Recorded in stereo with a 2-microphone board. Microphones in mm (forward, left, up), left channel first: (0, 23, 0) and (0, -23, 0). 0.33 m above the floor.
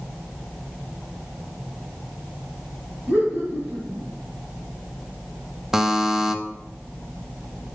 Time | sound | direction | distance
3.1 | laughter | 55° right (ahead or behind) | 3.5 m
5.7 | a buzzer | 10° right (ahead or behind) | 0.5 m